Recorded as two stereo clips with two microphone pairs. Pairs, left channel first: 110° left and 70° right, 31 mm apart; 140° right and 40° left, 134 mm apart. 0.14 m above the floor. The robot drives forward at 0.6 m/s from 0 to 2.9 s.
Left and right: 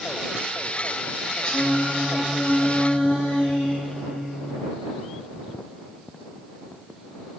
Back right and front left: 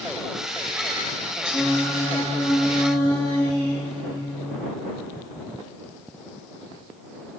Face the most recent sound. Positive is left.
turn(degrees=140)